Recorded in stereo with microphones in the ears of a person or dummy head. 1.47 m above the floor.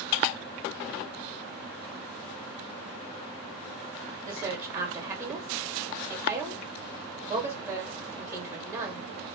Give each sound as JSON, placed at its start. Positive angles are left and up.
{"t": 4.3, "sound": "a woman speaking", "side_deg": -20, "distance_m": 1.9}